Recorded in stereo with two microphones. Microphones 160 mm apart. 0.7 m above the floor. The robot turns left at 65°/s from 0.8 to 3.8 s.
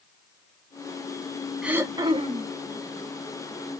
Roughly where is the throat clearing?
Ahead.